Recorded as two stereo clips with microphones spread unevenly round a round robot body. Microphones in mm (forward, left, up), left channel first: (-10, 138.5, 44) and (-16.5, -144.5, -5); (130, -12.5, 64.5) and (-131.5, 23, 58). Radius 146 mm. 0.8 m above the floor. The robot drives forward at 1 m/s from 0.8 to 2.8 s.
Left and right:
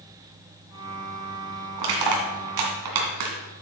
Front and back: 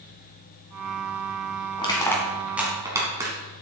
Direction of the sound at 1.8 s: 80° right.